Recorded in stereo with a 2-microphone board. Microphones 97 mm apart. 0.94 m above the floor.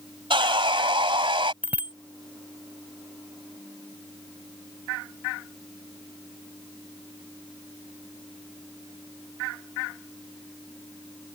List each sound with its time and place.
0.3 s sawing: 65° right (ahead or behind)
1.6 s a bicycle bell: 15° right (ahead or behind)